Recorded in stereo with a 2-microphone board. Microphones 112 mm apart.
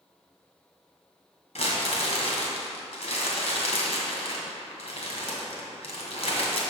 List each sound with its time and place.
1.6 s crumpling: 70° left (ahead or behind), 2 m